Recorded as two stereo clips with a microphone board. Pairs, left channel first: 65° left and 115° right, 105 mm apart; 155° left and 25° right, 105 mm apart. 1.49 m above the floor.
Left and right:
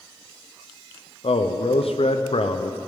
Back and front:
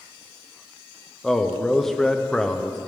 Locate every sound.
1.2 s a man speaking: 70° left, 0.6 m